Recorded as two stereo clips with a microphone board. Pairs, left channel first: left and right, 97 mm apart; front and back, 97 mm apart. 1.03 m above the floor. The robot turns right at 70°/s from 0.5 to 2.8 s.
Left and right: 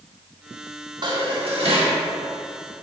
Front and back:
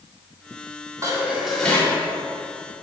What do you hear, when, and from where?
1.0 s dishes clattering: 125° right, 1.6 m; by 2.0 s 60° right, 1.6 m